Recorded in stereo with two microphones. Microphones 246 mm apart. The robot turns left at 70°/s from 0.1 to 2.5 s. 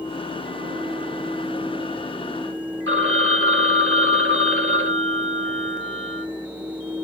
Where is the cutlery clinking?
No cutlery clinking in this recording.